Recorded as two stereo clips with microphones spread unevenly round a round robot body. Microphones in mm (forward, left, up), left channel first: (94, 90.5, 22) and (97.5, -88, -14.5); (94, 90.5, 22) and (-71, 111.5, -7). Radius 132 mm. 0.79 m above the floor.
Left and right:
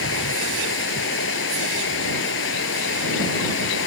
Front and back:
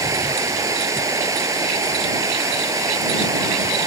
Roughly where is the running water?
Left.